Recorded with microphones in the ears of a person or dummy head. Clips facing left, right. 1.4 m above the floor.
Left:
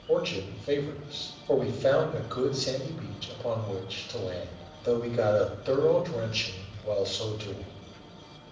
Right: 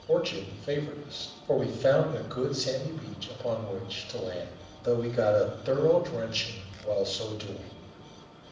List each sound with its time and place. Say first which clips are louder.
0.1 s a man speaking: even; 10° right (ahead or behind), 2.5 m